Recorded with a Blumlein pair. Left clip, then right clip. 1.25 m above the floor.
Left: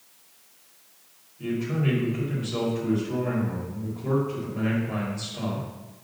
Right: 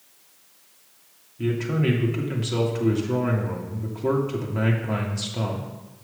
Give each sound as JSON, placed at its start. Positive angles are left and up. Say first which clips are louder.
{"t": 1.4, "sound": "a man speaking", "louder": "right 4 dB", "azimuth_deg": -30, "distance_m": 2.5}